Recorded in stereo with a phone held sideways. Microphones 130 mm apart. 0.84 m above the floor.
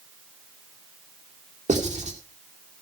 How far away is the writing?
About 2.5 m.